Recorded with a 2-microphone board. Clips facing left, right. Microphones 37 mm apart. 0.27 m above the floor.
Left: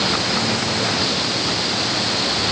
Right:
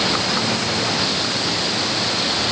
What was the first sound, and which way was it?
Only background noise.